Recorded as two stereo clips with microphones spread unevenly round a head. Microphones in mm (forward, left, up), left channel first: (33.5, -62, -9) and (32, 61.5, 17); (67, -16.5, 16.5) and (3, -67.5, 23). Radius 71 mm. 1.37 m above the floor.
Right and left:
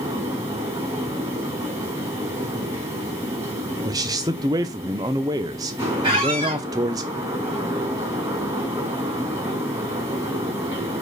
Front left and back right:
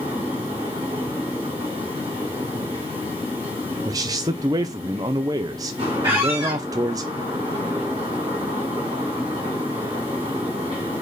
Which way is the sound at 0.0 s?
160° left.